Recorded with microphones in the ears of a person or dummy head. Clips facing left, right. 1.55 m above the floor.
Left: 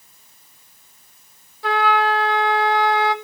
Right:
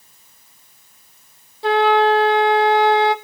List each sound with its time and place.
1.6 s a flute: 25° right (ahead or behind), 0.8 m